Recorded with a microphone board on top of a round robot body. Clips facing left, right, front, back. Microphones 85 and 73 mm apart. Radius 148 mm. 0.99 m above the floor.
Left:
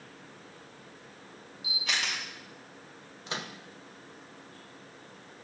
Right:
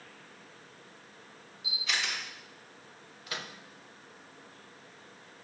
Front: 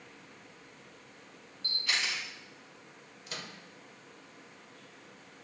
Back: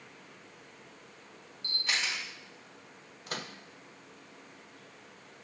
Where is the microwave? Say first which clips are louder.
Left 3 dB, back 4 dB; 150° left, 0.9 m.